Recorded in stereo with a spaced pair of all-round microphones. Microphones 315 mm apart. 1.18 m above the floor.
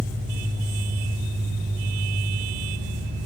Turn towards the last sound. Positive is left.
turn(degrees=-40)  # may be behind; listen again after turning